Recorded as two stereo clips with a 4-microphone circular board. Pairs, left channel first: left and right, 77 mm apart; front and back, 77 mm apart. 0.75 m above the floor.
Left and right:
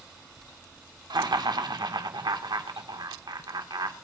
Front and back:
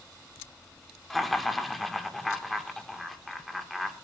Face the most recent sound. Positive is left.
turn(degrees=-90)